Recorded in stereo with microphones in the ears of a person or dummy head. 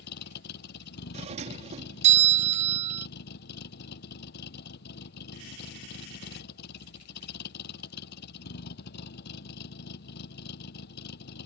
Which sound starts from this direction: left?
A vehicle, at 0.0 s.